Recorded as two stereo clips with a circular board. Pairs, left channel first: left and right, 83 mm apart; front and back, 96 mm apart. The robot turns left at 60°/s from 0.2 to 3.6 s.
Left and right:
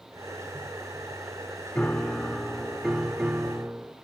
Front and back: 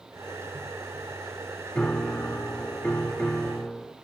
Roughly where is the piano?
Ahead left.